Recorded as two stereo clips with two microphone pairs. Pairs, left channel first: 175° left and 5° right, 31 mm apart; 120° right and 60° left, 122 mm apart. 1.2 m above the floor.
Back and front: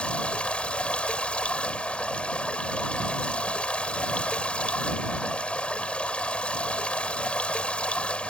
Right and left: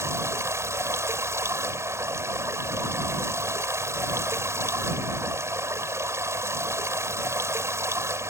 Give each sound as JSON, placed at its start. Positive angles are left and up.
{"t": 0.0, "sound": "running water", "azimuth_deg": 125}